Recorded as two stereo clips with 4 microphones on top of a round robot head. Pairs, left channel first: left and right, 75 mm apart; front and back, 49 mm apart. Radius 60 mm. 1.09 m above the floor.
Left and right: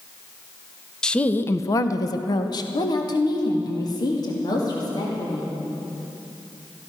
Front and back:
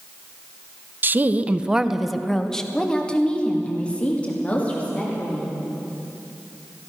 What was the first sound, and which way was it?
A woman speaking, 170° left.